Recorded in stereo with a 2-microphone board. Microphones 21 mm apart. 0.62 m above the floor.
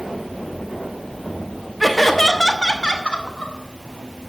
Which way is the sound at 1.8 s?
5° right (ahead or behind).